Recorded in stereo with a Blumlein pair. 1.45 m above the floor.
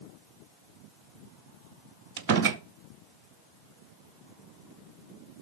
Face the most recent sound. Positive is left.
turn(degrees=-50)